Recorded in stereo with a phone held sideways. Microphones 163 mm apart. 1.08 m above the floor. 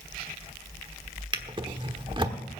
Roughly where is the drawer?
Right.